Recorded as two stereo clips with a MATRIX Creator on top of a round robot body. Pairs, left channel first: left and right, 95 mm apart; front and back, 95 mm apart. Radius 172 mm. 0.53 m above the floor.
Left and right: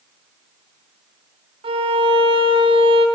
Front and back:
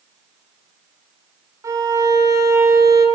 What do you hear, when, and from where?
1.6 s a violin: 120° right, 0.9 m